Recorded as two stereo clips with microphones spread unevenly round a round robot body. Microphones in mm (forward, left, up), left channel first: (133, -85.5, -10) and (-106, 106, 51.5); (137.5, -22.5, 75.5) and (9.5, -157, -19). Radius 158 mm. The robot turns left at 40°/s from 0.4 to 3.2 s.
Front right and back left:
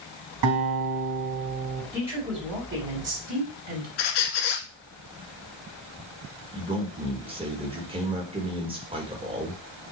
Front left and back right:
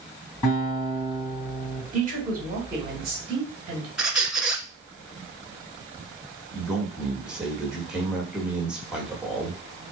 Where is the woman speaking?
125° right, 3 m; by 3.9 s 175° right, 3 m.